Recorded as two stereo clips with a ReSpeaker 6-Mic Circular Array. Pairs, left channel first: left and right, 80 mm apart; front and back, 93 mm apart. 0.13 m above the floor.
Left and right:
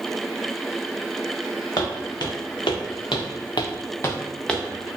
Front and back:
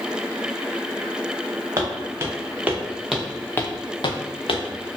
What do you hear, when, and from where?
1.8 s footsteps: 120° left, 1.2 m; by 5.0 s straight ahead, 0.8 m